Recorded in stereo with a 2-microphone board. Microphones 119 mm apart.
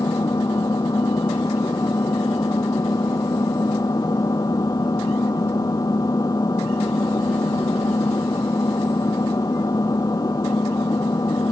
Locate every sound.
0.0 s an engine running: 30° left (ahead or behind)